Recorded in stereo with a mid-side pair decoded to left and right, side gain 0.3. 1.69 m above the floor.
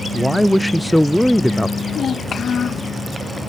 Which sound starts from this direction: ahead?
A woman speaking, at 0.1 s.